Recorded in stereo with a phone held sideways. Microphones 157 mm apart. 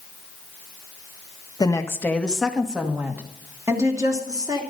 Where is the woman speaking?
25° left (ahead or behind), 1.3 m; by 4.6 s 25° right (ahead or behind), 3 m.